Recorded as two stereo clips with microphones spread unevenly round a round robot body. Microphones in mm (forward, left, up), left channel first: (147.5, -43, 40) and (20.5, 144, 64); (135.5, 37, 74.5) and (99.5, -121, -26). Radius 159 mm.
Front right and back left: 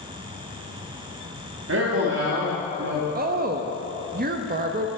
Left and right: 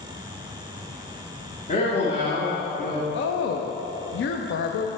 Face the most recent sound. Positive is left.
turn(degrees=100)